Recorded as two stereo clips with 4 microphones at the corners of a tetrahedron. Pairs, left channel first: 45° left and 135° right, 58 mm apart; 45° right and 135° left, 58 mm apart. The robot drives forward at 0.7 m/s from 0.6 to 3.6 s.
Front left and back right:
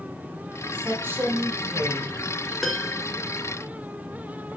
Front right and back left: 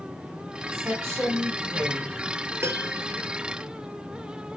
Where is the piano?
130° left, 0.9 m; by 3.0 s 145° left, 1.1 m.